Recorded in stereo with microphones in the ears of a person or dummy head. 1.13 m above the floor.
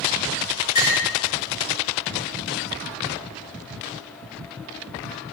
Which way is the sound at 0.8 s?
45° left (ahead or behind).